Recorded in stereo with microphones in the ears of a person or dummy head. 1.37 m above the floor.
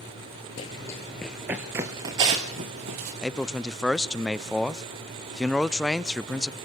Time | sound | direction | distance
0.6 | running footsteps | 25° left (ahead or behind) | 1.5 m
3.2 | a man speaking | 5° right (ahead or behind) | 0.5 m